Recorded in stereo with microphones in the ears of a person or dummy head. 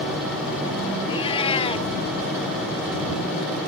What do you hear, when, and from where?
1.1 s a cat meowing: 30° left (ahead or behind)